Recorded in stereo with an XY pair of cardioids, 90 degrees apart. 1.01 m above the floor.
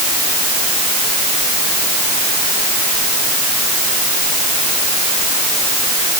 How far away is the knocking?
No knocking in this recording.